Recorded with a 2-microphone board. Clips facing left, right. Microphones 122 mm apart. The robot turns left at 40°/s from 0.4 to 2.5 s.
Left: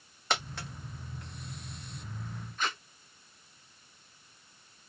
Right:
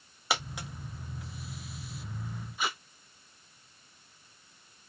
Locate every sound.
0.3 s a dropped coin: 10° right (ahead or behind), 1.0 m; by 0.7 s 15° right (ahead or behind), 1.0 m
2.6 s tape being pulled: 10° right (ahead or behind), 0.5 m